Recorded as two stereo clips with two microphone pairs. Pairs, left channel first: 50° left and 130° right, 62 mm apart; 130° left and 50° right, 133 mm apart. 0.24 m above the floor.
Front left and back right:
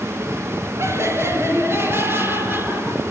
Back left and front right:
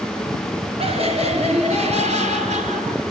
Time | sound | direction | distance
0.8 | laughter | 90° right | 4 m